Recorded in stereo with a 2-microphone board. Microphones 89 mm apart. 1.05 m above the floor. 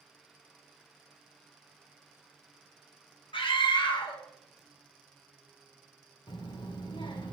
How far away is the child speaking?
About 0.5 m.